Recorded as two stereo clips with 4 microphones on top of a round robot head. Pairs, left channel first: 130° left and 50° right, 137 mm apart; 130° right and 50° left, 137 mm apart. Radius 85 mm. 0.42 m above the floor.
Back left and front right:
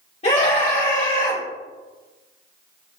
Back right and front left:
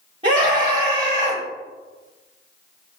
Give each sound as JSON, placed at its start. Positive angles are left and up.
{"t": 0.2, "sound": "a scream", "azimuth_deg": 90, "distance_m": 2.5}